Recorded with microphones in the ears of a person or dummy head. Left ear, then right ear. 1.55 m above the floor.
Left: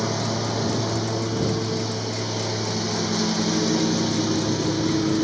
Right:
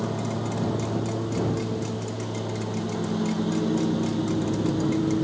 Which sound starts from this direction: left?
A lawn mower, at 0.0 s.